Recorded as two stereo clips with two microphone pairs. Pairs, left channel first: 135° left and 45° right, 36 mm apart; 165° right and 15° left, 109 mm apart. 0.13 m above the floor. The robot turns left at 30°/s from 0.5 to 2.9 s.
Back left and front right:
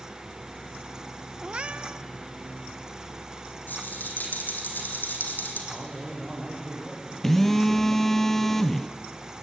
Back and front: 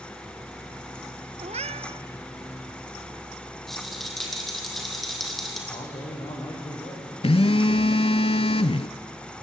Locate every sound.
1.4 s a cat meowing: 20° left, 0.5 m; by 2.0 s straight ahead, 0.5 m
3.7 s a rattle: 110° left, 3.5 m
5.7 s a man speaking: 130° right, 7 m
7.2 s a phone buzzing: 140° right, 0.6 m